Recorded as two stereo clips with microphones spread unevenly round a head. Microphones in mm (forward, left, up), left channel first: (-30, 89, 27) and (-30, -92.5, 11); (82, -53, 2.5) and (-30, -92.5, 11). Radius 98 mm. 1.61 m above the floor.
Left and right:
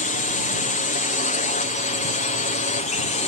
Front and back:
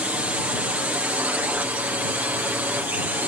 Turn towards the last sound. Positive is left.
turn(degrees=125)